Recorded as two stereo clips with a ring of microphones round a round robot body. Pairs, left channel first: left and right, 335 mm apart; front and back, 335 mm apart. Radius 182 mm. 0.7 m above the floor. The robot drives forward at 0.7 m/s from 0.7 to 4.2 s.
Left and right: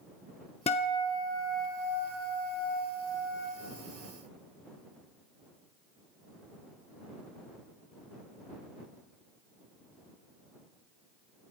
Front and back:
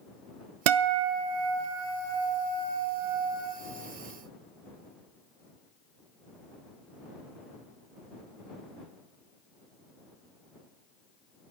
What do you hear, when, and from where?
0.7 s a guitar: 165° left, 0.6 m; by 3.5 s 175° left, 2.5 m